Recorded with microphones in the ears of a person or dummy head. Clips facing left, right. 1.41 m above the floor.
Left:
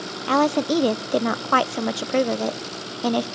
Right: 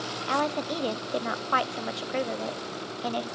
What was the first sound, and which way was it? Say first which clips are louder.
A woman speaking: left 10 dB; 60° left (ahead or behind).